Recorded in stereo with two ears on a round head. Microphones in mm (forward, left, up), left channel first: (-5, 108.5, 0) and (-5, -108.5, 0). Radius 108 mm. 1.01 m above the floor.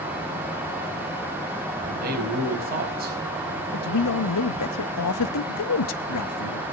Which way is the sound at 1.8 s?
40° right (ahead or behind).